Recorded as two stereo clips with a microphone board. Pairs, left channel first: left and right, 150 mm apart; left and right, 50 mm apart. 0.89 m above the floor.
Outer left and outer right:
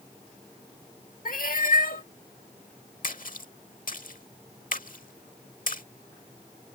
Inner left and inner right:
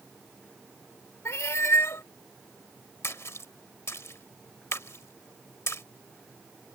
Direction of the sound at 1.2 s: 70° left (ahead or behind).